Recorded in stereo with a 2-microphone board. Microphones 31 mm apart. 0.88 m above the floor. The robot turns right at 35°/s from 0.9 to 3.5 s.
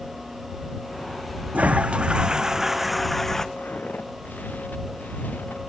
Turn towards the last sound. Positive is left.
turn(degrees=75)  # may be behind; listen again after turning